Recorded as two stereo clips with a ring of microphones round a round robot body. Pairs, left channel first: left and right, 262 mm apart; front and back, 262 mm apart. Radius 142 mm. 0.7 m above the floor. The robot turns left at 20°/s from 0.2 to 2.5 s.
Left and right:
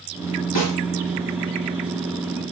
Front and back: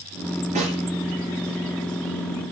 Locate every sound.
0.6 s a snare drum: 115° left, 4.5 m; by 0.8 s 110° left, 4.5 m